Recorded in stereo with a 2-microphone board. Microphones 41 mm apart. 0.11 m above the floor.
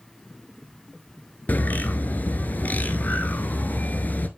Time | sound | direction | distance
1.5 | a bird | 45° left (ahead or behind) | 0.6 m